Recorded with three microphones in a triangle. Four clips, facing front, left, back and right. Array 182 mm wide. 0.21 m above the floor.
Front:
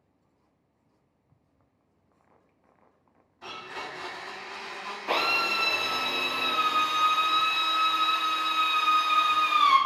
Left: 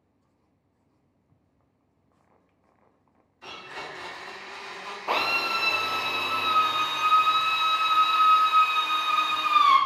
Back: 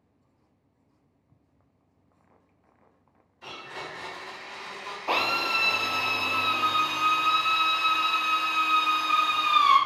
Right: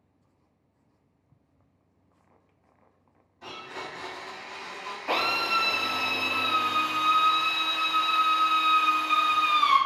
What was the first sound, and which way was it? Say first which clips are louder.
A blender: right 1 dB, front 1 dB; 55° right.